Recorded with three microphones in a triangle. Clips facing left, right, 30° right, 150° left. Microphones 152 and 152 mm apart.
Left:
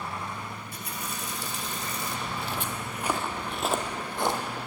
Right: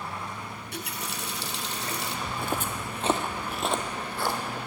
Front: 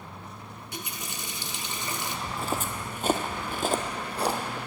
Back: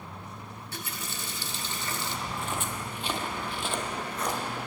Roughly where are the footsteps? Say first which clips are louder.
Right 2 dB, front 5 dB; right.